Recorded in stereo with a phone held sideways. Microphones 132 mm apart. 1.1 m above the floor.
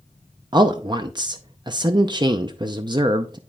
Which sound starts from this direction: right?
A man speaking, at 0.5 s.